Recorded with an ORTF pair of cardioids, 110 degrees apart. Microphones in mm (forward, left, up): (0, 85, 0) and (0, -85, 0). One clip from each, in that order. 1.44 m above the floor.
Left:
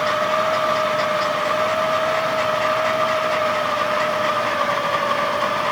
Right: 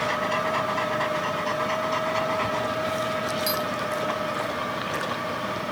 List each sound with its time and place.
0.0 s a machine running: 60° left, 1.1 m